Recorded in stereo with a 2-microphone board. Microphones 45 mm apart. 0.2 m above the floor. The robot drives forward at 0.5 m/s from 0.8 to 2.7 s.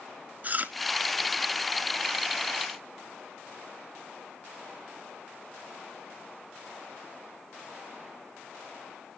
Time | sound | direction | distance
0.4 | chewing | 40° right (ahead or behind) | 0.7 m